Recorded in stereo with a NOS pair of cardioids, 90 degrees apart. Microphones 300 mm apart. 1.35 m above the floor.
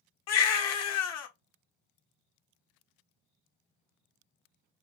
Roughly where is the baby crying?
Ahead left.